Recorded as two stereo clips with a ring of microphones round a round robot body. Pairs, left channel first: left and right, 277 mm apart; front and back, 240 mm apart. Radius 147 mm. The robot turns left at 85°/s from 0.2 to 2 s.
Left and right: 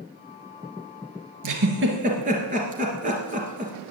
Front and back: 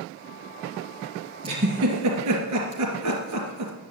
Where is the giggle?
105° right, 2.5 m; by 3.7 s 155° right, 2.5 m.